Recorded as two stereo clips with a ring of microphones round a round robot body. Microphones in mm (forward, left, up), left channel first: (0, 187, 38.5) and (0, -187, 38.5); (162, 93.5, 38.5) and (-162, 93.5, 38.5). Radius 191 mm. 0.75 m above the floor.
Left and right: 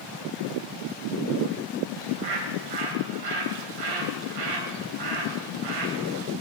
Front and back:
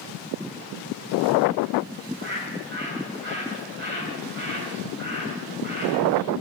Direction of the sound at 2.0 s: 115° right.